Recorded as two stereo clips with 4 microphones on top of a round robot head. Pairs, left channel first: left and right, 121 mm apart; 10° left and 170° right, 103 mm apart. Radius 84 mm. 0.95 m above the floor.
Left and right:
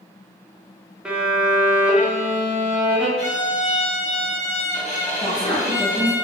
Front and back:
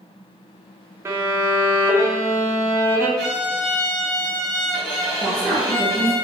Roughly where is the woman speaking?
Behind left.